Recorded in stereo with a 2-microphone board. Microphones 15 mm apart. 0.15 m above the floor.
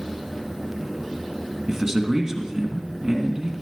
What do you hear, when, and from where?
1.7 s a man speaking: 35° right (ahead or behind), 2 m